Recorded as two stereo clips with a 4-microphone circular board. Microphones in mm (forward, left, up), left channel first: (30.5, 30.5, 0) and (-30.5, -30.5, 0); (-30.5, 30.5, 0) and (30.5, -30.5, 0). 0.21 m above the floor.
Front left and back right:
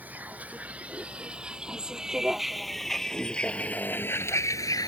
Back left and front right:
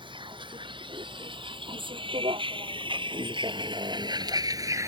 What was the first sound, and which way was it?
A vehicle, 65° right.